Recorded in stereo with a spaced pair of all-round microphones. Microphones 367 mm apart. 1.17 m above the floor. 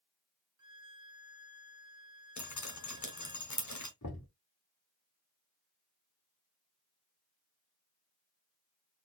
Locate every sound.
0.6 s a violin: 55° right (ahead or behind), 0.8 m
2.4 s dripping: 50° left (ahead or behind), 1.3 m
4.0 s knocking: 50° left (ahead or behind), 2.0 m